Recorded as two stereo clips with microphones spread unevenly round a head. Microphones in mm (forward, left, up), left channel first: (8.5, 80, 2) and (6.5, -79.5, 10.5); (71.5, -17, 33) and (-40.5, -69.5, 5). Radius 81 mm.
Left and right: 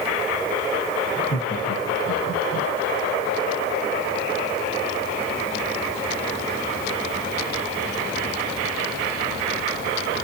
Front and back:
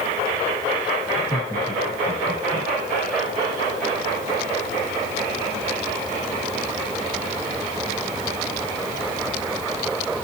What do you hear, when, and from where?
1.1 s laughter: 85° left, 8 m; by 2.7 s 80° left, 7 m